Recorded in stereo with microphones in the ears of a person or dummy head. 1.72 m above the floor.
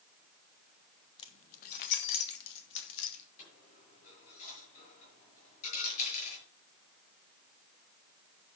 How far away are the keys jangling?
About 0.9 m.